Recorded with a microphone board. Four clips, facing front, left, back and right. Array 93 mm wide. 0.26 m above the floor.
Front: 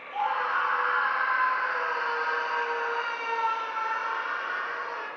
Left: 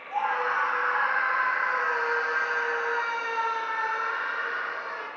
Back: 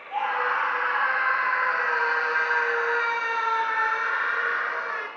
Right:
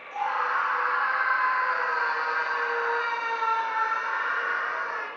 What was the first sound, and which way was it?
A scream, 150° left.